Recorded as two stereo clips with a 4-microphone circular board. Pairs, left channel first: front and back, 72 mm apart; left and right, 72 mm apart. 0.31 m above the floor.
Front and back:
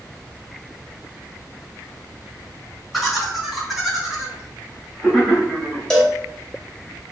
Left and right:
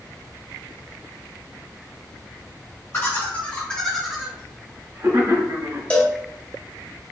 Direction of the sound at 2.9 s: 90° left.